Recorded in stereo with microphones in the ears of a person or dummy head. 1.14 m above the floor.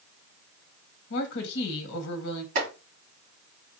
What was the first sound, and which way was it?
A woman speaking, 70° left (ahead or behind).